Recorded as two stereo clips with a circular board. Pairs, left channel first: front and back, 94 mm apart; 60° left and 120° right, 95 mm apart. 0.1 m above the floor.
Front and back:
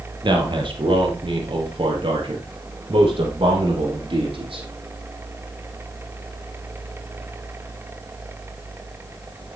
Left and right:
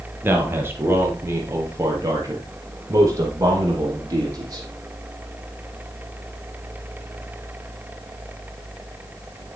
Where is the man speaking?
175° left, 3 m; by 4.7 s 170° right, 5.5 m.